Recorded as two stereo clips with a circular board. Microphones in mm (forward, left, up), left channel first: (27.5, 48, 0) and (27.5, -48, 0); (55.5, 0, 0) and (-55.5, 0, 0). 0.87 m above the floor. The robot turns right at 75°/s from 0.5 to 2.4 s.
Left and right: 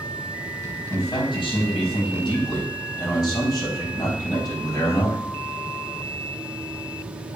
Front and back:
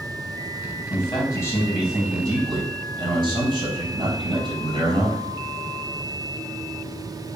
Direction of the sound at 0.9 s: 25° left.